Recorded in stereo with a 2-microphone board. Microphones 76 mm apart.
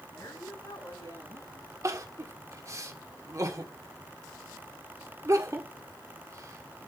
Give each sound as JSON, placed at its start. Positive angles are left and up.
{"t": 0.1, "sound": "a woman speaking", "side_deg": 50, "distance_m": 4.5}
{"t": 1.8, "sound": "crying", "side_deg": -40, "distance_m": 1.4}